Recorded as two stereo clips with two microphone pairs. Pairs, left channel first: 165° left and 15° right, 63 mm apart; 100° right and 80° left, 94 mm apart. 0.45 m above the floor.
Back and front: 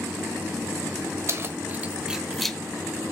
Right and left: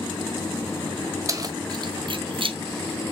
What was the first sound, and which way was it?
Keys jangling, 25° left.